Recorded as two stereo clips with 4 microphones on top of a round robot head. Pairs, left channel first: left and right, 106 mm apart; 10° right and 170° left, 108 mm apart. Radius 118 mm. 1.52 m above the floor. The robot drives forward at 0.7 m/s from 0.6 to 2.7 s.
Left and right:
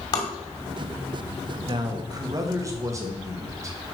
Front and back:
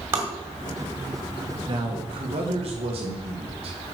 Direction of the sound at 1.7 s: 135° right.